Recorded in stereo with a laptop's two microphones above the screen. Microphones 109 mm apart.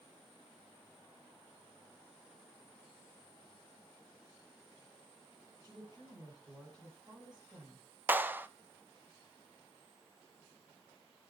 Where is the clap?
15° right (ahead or behind), 0.6 m.